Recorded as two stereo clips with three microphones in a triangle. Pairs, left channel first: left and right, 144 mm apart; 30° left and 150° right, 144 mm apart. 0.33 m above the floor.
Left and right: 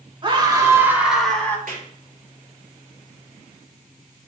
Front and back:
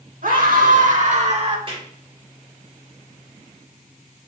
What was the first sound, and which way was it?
A scream, 145° right.